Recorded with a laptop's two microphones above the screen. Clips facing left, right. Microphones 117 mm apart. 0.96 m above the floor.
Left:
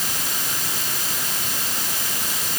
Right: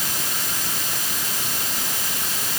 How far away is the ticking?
I don't hear ticking.